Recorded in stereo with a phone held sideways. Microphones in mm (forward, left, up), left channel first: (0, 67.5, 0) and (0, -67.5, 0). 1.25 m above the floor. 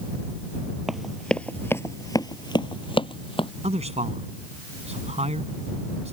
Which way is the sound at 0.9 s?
5° right (ahead or behind).